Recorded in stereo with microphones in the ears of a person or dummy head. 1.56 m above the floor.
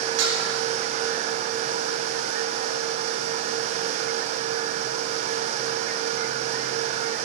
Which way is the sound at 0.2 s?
75° right (ahead or behind).